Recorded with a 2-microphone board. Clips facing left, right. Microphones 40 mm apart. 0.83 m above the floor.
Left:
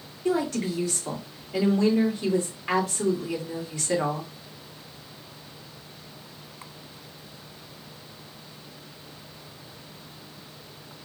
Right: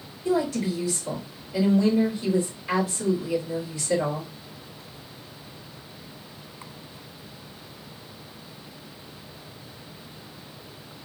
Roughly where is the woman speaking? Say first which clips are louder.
Right 1 dB; left.